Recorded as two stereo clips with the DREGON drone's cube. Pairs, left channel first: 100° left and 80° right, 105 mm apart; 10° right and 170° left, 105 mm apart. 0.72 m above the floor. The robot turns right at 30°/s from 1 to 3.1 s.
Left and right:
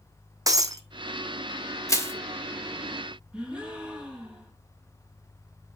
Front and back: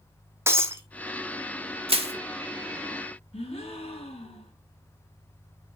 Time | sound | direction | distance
0.5 | breaking glass | 130° right | 1.3 m
1.9 | crushing | 155° left | 1.6 m
3.3 | a gasp | straight ahead | 5 m